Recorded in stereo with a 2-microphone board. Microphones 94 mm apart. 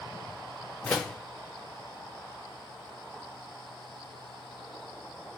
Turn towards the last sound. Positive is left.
turn(degrees=10)  # may be behind; listen again after turning